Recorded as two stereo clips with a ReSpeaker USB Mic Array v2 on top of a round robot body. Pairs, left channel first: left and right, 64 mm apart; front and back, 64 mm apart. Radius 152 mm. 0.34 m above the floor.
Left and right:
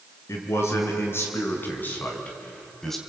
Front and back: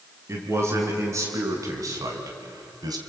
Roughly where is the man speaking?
Behind left.